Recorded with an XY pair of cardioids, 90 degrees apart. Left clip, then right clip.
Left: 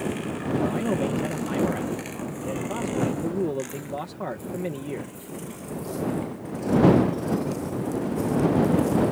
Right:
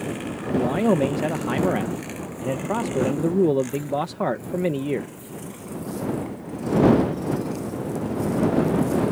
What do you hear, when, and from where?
0.5 s a man speaking: 60° right